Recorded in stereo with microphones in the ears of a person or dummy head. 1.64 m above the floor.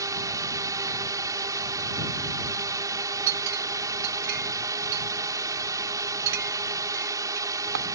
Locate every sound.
0.0 s a drone: 15° right (ahead or behind)
3.3 s a clink: 65° right (ahead or behind)